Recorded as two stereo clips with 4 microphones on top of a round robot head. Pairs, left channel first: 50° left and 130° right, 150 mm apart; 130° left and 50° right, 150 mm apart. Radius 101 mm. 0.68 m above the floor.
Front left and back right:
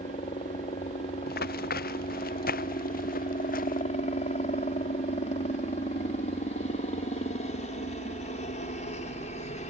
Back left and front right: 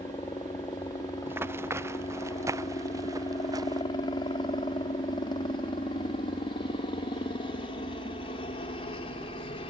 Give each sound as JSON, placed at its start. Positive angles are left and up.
{"t": 0.0, "sound": "a helicopter", "azimuth_deg": 70}
{"t": 1.3, "sound": "running footsteps", "azimuth_deg": 25}